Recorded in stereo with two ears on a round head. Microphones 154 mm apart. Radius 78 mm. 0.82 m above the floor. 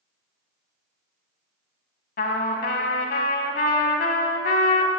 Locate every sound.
2.2 s a trumpet: 60° left (ahead or behind), 1.1 m